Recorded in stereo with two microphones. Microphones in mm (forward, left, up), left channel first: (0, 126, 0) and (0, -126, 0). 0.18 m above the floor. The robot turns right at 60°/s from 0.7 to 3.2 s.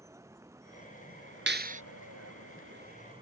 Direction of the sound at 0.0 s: 170° right.